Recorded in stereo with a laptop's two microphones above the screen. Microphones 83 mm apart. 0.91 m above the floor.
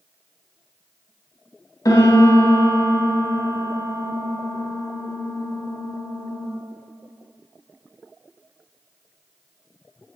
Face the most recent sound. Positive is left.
turn(degrees=45)  # may be behind; listen again after turning